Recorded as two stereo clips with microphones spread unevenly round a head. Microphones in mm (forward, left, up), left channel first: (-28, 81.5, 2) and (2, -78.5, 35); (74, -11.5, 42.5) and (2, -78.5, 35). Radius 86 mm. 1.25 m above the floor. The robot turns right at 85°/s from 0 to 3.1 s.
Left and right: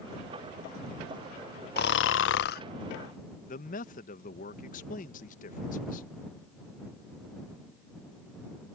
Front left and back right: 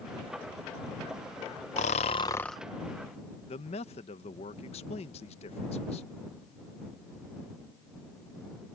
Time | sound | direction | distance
1.8 | snoring | 65° left | ?
3.5 | a man speaking | 65° left | ?